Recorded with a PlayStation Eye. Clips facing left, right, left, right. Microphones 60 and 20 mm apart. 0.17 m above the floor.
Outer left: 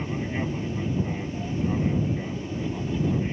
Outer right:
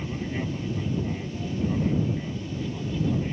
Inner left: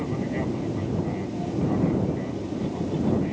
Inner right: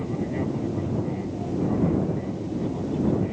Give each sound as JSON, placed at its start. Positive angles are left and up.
{"t": 0.0, "sound": "an aircraft", "side_deg": 20}